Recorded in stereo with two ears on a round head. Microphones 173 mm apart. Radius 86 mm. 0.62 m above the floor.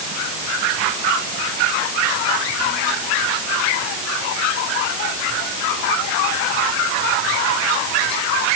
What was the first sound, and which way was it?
Only background noise.